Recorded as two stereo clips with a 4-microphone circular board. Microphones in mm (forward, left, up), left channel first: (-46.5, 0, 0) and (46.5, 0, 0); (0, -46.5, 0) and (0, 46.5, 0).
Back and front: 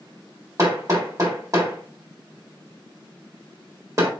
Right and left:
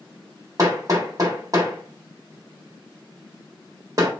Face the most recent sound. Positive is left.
turn(degrees=45)